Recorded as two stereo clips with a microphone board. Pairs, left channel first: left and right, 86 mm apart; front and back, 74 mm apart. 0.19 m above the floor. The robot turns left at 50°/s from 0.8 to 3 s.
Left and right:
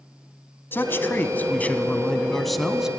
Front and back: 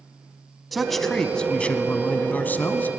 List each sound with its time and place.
0.7 s a man speaking: 90° left, 1.1 m; by 2.9 s 15° right, 1.1 m